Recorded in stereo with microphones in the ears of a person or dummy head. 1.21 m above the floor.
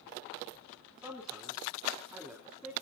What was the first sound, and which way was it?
A man speaking, 5° right (ahead or behind).